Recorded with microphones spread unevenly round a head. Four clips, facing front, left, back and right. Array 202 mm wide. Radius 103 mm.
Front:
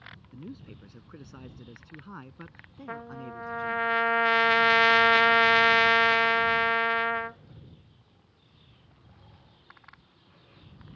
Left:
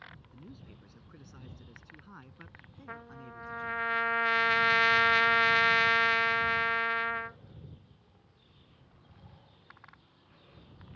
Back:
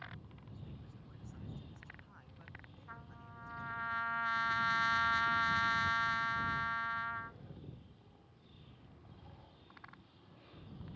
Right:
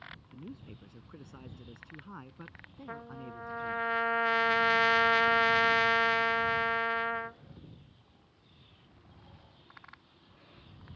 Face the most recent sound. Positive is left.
turn(degrees=-10)